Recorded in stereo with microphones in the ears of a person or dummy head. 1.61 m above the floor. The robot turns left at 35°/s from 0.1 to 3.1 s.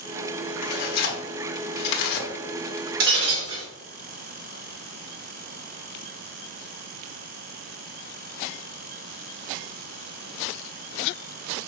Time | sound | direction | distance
0.6 | tearing paper | 45° left (ahead or behind) | 0.9 m
3.0 | breaking glass | 55° right (ahead or behind) | 2.5 m